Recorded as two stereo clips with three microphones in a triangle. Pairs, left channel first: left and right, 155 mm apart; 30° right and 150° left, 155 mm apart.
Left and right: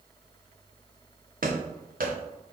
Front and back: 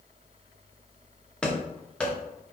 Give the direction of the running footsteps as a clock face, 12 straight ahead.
4 o'clock.